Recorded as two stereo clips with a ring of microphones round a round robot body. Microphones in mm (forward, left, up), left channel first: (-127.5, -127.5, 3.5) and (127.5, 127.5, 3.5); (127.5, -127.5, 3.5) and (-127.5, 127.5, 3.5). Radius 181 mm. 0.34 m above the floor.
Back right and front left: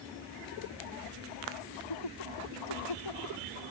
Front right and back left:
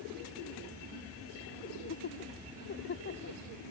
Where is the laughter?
105° right.